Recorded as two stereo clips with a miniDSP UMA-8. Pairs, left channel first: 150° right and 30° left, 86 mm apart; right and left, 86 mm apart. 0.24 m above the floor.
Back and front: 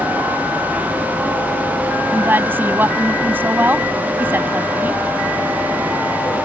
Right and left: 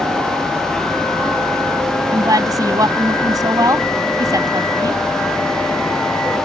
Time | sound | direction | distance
2.1 | a woman speaking | 85° left | ?